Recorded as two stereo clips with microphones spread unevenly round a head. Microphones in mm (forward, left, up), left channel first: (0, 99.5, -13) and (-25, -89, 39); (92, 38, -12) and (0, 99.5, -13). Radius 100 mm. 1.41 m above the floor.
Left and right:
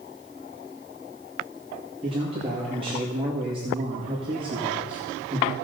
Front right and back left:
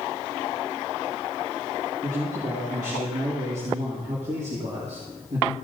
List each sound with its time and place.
2.0 s a man speaking: 160° right, 2 m